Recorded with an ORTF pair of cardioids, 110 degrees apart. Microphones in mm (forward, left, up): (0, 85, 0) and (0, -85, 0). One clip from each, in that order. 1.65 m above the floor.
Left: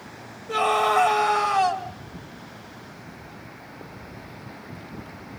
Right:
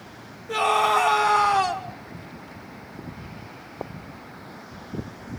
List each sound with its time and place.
0.5 s a scream: 5° left, 2.5 m